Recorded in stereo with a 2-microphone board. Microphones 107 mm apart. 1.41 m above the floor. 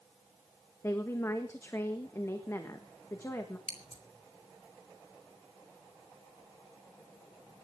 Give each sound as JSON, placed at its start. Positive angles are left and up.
{"t": 0.8, "sound": "a woman speaking", "side_deg": 25, "distance_m": 1.5}
{"t": 3.7, "sound": "scissors", "side_deg": 80, "distance_m": 2.5}